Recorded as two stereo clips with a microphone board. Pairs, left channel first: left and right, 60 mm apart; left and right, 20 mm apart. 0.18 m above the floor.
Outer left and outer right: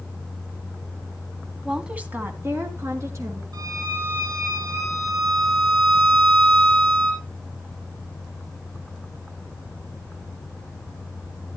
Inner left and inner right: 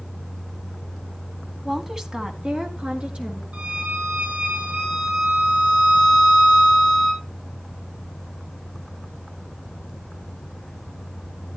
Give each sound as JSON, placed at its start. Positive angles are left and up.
{"t": 1.6, "sound": "a woman speaking", "side_deg": -5, "distance_m": 1.4}
{"t": 3.5, "sound": "a violin", "side_deg": -75, "distance_m": 4.0}